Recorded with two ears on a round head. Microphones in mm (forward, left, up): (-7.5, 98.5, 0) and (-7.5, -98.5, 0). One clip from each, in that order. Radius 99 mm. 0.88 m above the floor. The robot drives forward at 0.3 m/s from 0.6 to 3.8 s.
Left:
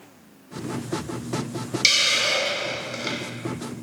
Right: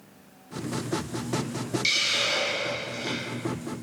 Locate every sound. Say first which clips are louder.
1.8 s a hiss: left 5 dB; 35° left (ahead or behind), 0.5 m; by 3.2 s 20° left (ahead or behind), 0.9 m